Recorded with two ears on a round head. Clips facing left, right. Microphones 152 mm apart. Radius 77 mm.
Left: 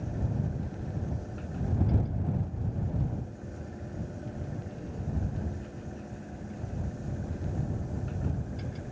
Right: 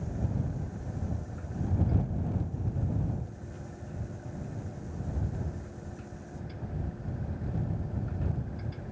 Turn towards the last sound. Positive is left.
No sound to turn to.